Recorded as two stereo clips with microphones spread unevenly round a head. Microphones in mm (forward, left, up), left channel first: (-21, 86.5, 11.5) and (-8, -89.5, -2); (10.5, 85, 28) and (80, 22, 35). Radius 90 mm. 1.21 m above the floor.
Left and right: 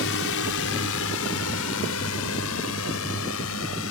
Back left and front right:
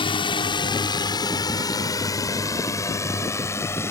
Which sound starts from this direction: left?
A drone, at 0.0 s.